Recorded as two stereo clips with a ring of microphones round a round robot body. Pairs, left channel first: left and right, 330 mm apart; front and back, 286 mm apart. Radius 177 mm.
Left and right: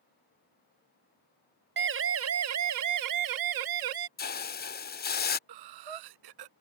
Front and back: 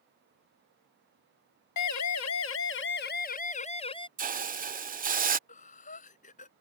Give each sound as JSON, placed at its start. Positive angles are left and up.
{"t": 1.8, "sound": "a siren", "azimuth_deg": -35}
{"t": 4.2, "sound": "a hiss", "azimuth_deg": 135}
{"t": 5.5, "sound": "breathing", "azimuth_deg": -70}